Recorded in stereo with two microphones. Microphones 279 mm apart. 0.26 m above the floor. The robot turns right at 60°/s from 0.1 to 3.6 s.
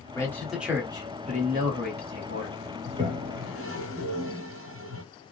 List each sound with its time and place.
0.1 s a man speaking: 160° left, 1.2 m; by 2.6 s 55° right, 1.2 m
2.9 s a toilet flushing: 20° right (ahead or behind), 0.6 m; by 5.0 s 50° right (ahead or behind), 0.6 m